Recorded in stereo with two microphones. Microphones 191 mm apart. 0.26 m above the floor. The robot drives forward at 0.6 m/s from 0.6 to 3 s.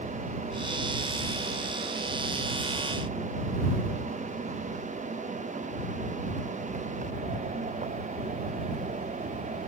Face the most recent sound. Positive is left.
No sound to turn to.